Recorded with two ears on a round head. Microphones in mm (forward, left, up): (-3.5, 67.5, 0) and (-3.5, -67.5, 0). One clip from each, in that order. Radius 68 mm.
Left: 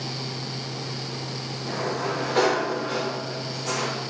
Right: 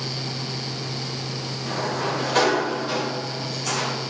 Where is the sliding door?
70° right (ahead or behind), 3 m.